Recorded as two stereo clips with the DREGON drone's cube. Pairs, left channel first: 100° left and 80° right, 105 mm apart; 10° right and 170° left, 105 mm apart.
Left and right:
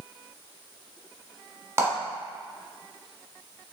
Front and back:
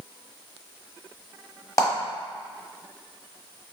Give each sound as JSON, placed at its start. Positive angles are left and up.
{"t": 1.8, "sound": "a clap", "azimuth_deg": -35, "distance_m": 1.1}